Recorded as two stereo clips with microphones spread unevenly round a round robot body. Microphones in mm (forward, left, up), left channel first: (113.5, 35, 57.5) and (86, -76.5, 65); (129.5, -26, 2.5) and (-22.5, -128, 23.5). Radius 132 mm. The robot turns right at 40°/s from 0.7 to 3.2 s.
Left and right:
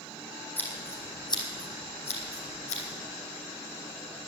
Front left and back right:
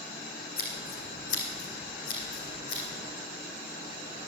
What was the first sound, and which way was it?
Scissors, 5° left.